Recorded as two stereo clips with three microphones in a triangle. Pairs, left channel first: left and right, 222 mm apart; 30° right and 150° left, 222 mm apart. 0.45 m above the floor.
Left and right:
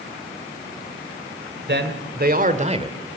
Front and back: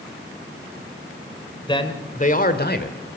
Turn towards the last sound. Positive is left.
turn(degrees=-25)